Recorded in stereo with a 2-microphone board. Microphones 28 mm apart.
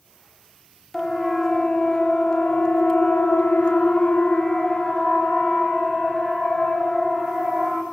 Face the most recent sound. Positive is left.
turn(degrees=25)  # may be behind; listen again after turning